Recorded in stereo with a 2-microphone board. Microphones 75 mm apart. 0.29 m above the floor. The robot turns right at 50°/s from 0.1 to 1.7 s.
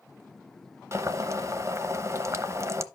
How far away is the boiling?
About 0.7 m.